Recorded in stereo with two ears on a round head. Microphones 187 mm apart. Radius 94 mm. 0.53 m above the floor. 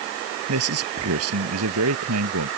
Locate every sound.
0.5 s a man speaking: 85° right